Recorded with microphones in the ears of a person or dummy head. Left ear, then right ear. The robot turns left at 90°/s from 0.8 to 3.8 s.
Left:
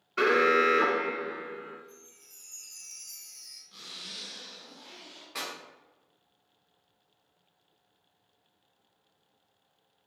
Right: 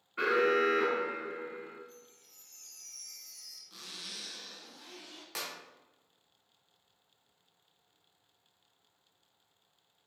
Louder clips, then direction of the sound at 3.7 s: Left 2 dB; 60° right (ahead or behind).